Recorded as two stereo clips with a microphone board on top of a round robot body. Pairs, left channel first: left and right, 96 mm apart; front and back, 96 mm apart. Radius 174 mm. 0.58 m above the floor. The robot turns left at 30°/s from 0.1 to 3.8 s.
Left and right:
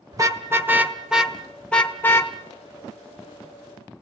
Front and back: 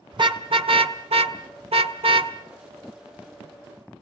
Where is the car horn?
140° right, 2 m; by 2.3 s 155° left, 2 m.